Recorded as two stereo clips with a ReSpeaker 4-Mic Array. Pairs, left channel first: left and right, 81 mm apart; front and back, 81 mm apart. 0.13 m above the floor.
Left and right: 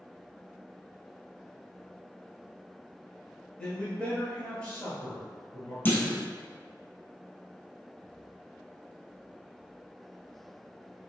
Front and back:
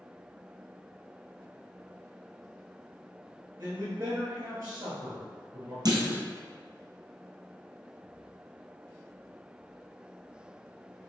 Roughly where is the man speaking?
Behind left.